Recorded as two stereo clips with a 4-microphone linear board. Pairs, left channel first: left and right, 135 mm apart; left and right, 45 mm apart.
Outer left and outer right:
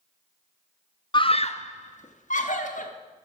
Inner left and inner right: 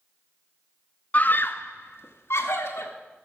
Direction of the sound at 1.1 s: 35° left (ahead or behind).